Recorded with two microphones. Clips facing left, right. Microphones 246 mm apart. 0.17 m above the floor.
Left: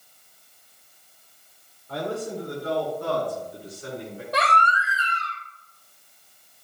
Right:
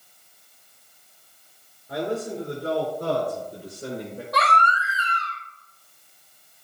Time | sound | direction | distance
1.9 | a man speaking | 15° right (ahead or behind) | 2.5 m
4.3 | a baby crying | 30° left (ahead or behind) | 3.5 m